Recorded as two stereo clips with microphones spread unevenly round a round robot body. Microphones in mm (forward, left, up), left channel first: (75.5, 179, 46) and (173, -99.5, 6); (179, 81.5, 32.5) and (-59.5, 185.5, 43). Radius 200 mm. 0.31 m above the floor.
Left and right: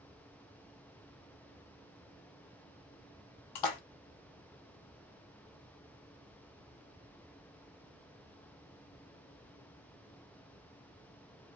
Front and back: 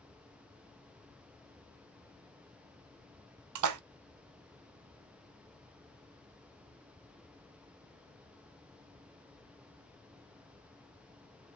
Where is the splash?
145° left, 0.5 m.